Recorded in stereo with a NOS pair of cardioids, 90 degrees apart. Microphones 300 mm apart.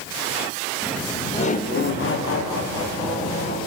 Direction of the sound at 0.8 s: 5° right.